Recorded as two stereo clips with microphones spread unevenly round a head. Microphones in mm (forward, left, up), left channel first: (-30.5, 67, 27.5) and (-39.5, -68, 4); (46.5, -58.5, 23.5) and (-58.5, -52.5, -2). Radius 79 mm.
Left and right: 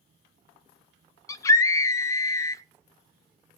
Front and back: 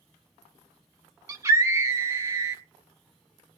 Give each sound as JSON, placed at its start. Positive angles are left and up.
{"t": 1.3, "sound": "a scream", "azimuth_deg": 105, "distance_m": 0.7}